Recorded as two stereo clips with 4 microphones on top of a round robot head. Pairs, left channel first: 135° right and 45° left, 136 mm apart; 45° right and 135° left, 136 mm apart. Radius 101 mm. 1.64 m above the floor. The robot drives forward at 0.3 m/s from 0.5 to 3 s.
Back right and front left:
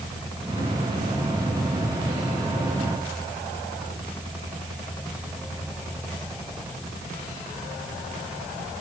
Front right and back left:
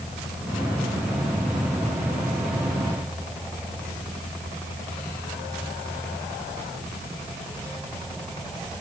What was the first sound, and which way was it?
Only background noise.